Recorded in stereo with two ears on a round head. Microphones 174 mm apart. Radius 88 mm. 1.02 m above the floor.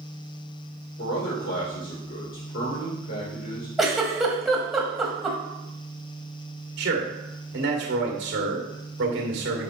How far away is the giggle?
About 1.2 m.